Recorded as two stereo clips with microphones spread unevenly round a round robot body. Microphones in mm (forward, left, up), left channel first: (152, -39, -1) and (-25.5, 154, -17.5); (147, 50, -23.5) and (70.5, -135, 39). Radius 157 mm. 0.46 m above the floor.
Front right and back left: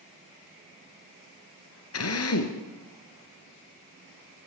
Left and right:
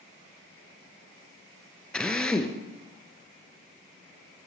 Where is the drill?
20° right, 3 m.